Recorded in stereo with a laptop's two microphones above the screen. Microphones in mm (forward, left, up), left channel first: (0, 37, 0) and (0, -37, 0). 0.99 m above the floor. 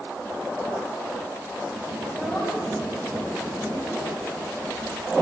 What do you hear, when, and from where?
2.0 s a child speaking: 15° right (ahead or behind), 3.5 m